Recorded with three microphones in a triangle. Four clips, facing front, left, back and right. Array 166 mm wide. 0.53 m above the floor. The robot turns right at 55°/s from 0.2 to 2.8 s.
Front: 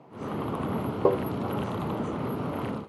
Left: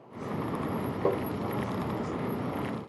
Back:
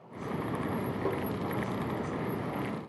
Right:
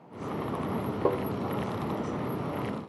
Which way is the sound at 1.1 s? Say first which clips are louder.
Right 1 dB, front 11 dB; 5° left.